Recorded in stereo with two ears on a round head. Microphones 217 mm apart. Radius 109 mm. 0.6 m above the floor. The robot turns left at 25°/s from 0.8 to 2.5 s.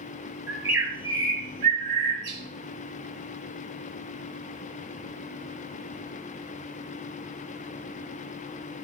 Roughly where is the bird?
Ahead.